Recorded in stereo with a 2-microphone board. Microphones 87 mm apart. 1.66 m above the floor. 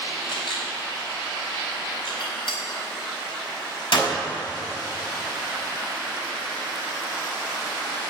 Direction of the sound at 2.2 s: 75° left (ahead or behind).